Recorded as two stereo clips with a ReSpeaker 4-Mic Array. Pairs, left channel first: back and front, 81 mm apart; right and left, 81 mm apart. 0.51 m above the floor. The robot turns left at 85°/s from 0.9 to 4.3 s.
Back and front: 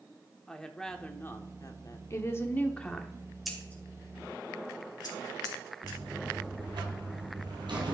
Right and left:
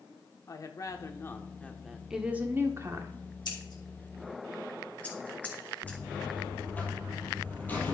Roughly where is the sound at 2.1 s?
Behind.